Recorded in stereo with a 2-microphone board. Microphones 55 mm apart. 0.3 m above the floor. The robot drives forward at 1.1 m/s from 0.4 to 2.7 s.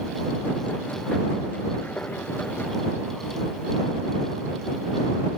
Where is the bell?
I don't hear a bell.